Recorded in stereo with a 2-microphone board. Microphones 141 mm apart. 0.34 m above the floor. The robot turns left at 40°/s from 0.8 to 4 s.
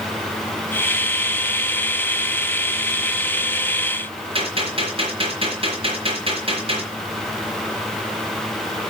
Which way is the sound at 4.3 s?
40° right (ahead or behind).